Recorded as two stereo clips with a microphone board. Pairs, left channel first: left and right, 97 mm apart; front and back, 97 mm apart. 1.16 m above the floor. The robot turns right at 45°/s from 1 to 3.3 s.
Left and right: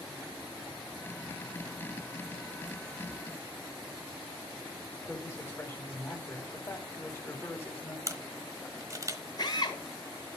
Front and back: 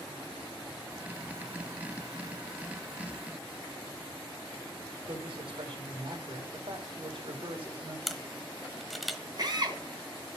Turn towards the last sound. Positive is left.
turn(degrees=135)